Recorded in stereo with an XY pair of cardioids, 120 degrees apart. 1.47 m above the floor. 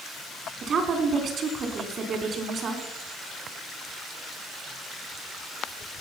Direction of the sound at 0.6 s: 45° right.